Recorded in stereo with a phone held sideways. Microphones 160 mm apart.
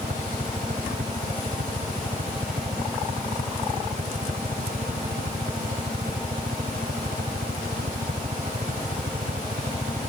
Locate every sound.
0.0 s a helicopter: 75° right (ahead or behind)